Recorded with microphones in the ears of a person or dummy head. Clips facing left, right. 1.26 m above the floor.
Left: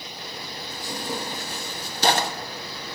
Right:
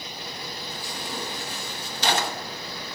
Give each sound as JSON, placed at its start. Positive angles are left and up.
{"t": 0.7, "sound": "tearing paper", "side_deg": 40, "distance_m": 1.5}